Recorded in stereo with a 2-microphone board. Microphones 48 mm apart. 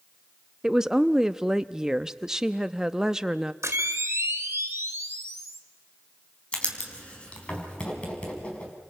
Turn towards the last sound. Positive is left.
turn(degrees=30)  # may be behind; listen again after turning